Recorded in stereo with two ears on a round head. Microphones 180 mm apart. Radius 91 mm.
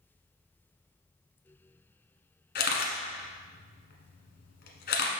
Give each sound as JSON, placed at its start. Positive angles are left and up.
{"t": 2.5, "sound": "a camera shutter", "side_deg": 55, "distance_m": 1.4}